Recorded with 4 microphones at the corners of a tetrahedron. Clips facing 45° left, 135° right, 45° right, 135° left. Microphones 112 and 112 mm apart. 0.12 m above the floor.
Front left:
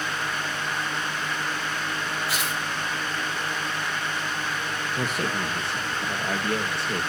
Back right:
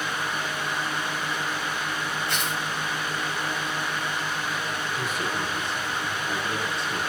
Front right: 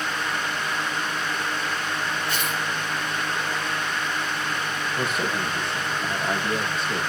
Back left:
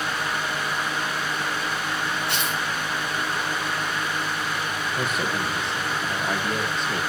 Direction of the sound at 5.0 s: 45° left.